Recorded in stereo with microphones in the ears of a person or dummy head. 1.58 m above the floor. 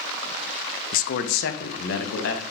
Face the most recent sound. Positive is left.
turn(degrees=70)  # may be behind; listen again after turning